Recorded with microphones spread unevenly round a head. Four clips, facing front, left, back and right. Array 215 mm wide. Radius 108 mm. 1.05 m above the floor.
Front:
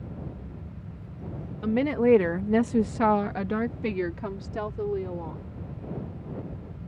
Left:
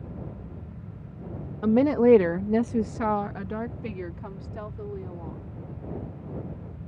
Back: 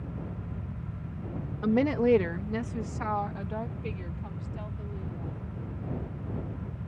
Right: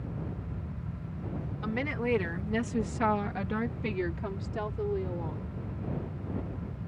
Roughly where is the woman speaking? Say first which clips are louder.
Left 14 dB, front 2 dB; left.